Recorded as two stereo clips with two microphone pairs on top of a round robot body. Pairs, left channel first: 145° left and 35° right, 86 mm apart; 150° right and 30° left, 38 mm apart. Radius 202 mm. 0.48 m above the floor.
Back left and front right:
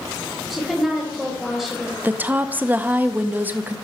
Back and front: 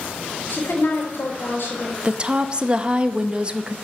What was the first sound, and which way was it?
A woman speaking, 125° right.